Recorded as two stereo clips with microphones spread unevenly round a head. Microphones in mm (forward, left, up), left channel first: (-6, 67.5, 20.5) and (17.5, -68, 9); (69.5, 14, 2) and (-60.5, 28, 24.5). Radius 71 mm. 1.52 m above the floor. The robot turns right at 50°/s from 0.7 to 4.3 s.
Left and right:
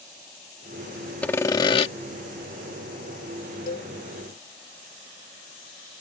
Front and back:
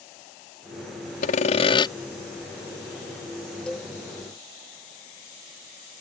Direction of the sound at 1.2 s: 20° left.